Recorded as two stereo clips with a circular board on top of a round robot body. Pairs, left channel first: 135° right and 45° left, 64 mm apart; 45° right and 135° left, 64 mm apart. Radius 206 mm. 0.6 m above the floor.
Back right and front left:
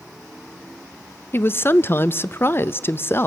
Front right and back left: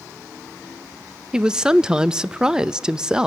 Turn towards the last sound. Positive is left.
turn(degrees=-155)